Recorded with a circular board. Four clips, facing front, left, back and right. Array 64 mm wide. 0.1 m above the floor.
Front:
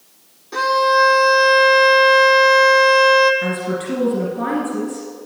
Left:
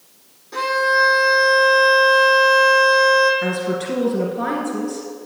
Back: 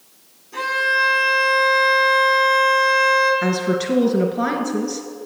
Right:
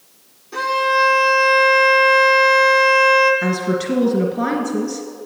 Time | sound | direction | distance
0.5 | a violin | 15° left | 1.7 m
3.4 | a woman speaking | 155° right | 1.5 m